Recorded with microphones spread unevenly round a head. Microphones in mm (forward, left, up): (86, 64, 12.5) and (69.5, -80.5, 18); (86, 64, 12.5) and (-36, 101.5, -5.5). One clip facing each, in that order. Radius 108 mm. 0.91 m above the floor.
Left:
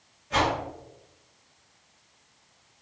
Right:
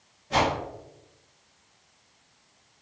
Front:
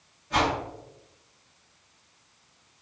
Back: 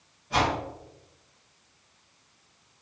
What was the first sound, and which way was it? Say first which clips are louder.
A whoosh: right 1 dB, even; 125° right.